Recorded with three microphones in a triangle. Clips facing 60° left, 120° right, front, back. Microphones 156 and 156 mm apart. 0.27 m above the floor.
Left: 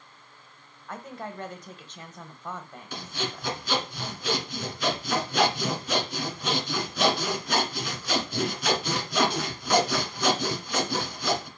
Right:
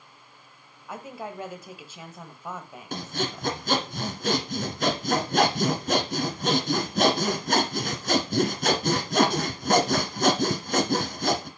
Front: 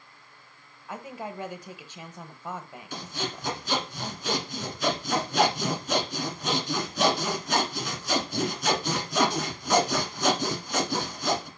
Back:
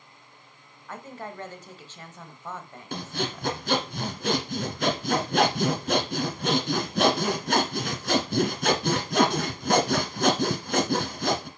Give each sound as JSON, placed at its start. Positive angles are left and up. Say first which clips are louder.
{"t": 0.9, "sound": "a woman speaking", "louder": "right 1 dB, front 1 dB", "azimuth_deg": -50, "distance_m": 1.0}
{"t": 2.9, "sound": "sawing", "louder": "right 4 dB, back 3 dB", "azimuth_deg": -155, "distance_m": 1.3}